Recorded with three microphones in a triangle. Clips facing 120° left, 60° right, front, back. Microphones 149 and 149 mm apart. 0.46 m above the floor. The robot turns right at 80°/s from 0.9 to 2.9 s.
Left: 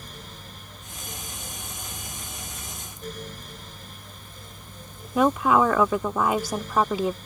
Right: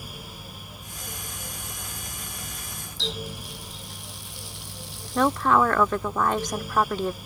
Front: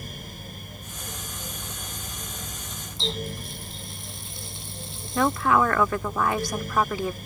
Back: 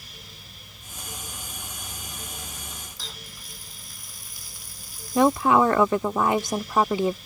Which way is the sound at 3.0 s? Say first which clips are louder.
Right 3 dB, front 13 dB; 65° right.